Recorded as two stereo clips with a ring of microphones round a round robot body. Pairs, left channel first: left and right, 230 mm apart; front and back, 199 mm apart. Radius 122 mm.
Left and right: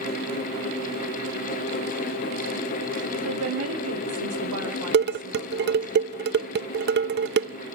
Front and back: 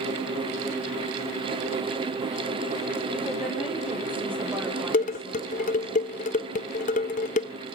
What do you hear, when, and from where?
3.1 s a woman speaking: 90° right, 3.5 m; by 5.9 s 105° right, 5 m
4.9 s dishes clattering: 50° right, 0.6 m